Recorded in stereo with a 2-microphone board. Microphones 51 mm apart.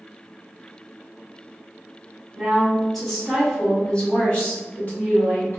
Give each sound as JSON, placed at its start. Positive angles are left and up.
{"t": 2.4, "sound": "a woman speaking", "side_deg": -15, "distance_m": 1.5}